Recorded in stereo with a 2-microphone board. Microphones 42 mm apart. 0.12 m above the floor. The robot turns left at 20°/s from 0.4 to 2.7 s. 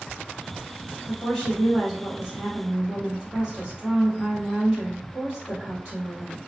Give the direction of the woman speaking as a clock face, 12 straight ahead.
12 o'clock.